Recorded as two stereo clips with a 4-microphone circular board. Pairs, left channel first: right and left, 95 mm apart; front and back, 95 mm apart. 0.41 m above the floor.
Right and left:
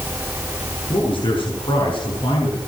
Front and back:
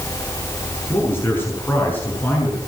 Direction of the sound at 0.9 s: 65° right.